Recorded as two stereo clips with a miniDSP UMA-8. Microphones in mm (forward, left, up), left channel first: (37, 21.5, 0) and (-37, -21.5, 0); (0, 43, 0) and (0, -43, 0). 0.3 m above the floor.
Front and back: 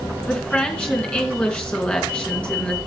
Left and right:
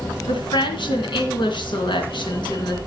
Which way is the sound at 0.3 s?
105° left.